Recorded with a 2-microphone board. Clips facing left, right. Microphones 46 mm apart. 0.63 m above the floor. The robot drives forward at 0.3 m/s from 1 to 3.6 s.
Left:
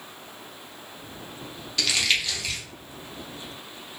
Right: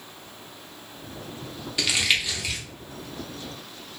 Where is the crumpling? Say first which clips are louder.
Right 1 dB; 15° right (ahead or behind), 0.7 m.